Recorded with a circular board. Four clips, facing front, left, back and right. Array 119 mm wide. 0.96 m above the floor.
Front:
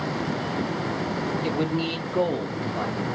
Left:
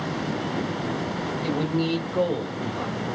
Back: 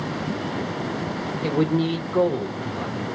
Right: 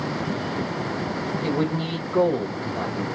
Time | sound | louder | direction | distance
1.4 | a man speaking | left 1 dB, back 7 dB | 165° right | 1.2 m